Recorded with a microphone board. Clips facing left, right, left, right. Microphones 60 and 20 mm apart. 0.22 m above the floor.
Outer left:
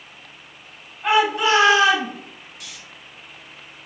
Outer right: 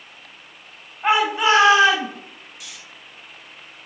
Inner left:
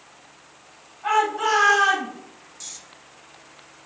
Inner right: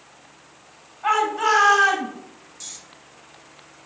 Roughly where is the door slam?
I don't hear a door slam.